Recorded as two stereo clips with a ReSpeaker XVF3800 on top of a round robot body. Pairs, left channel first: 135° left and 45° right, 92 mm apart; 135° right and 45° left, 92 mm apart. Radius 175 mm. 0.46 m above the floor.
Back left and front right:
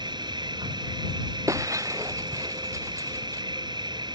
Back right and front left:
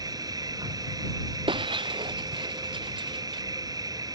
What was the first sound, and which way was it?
An insect, 5° right.